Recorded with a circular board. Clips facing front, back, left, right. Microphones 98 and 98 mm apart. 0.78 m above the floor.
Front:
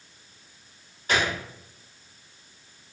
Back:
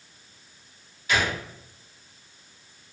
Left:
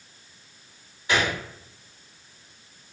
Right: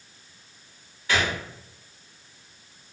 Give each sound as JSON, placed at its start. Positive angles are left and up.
{"t": 1.1, "sound": "a gunshot", "azimuth_deg": 30, "distance_m": 1.1}